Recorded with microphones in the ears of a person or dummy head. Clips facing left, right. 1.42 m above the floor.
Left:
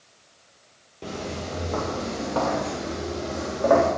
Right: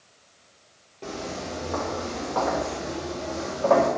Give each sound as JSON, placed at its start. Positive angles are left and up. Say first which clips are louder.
{"t": 1.0, "sound": "footsteps", "louder": "left 1 dB", "side_deg": 15, "distance_m": 1.9}